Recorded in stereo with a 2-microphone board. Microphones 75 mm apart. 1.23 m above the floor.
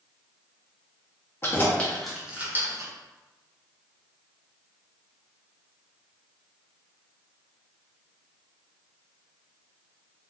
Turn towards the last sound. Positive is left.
turn(degrees=-45)  # may be behind; listen again after turning